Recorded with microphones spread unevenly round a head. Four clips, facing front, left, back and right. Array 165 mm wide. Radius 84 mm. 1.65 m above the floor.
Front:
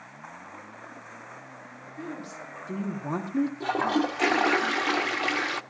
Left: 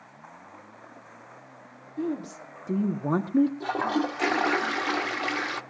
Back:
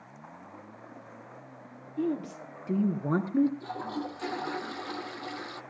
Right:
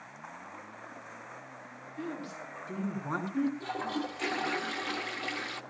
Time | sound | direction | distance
2.0 | a woman speaking | 130° left | 1.6 m
3.6 | a toilet flushing | 30° left | 0.8 m